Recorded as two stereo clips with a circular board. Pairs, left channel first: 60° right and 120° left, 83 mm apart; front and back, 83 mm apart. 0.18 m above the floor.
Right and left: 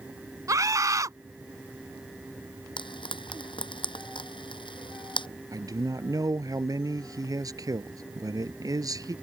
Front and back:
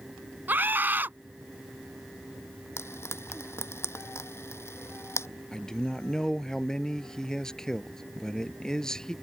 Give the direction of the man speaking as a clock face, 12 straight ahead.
9 o'clock.